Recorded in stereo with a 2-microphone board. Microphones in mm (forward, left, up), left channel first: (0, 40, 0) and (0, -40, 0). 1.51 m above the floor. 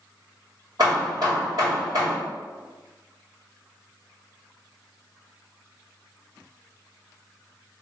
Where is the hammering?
55° right (ahead or behind), 1.9 m.